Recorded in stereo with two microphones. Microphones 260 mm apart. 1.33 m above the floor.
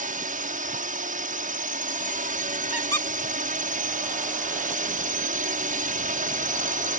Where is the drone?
30° right (ahead or behind).